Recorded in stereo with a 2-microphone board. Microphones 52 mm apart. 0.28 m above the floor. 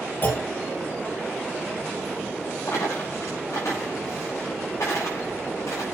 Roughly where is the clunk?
Left.